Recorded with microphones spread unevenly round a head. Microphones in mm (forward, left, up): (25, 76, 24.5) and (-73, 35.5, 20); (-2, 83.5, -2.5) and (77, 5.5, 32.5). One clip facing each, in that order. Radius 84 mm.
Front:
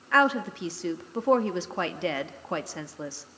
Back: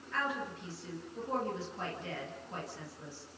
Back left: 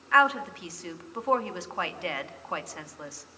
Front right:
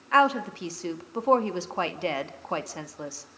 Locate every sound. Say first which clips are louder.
0.1 s a woman speaking: front 13 dB, front right 2 dB; 15° left, 2 m